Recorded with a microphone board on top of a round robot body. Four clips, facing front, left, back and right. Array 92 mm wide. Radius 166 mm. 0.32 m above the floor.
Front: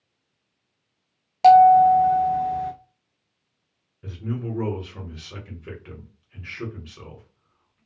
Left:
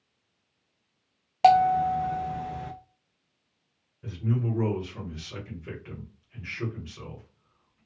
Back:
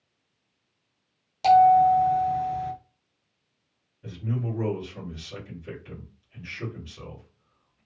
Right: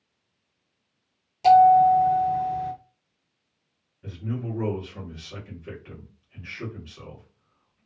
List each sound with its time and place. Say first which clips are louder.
1.4 s a bell: right 5 dB, front 4 dB; 55° left, 0.5 m
4.0 s a man speaking: left 3 dB, front 1 dB; 10° left, 1.7 m